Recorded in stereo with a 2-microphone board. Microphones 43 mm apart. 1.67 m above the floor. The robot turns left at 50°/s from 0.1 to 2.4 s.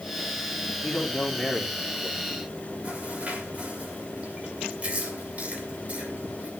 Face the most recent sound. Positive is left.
turn(degrees=-30)  # may be behind; listen again after turning